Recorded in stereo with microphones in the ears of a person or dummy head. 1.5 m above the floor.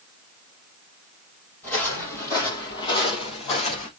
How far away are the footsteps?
About 3 m.